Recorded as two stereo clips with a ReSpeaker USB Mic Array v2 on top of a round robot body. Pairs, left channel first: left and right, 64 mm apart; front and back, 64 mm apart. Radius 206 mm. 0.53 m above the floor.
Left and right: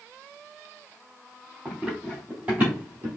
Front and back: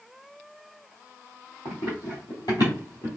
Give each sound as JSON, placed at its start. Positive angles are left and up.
{"t": 1.6, "sound": "running footsteps", "azimuth_deg": -5, "distance_m": 1.3}